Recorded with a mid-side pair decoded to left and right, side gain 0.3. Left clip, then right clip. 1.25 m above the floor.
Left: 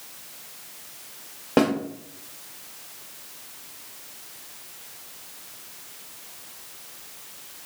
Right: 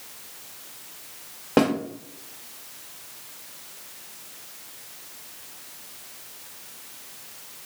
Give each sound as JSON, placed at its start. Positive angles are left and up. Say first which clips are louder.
{"t": 1.6, "sound": "a snare drum", "louder": "even", "azimuth_deg": -5, "distance_m": 0.9}